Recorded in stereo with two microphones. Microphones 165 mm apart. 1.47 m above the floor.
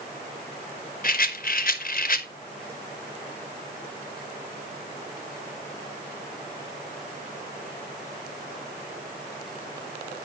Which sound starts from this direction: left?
A rattle, at 1.0 s.